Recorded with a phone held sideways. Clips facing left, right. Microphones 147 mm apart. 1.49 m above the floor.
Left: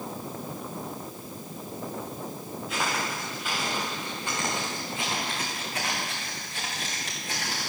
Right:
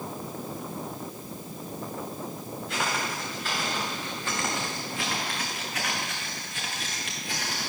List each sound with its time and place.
2.7 s footsteps: 5° left (ahead or behind), 6 m; by 7.7 s 50° left (ahead or behind), 5 m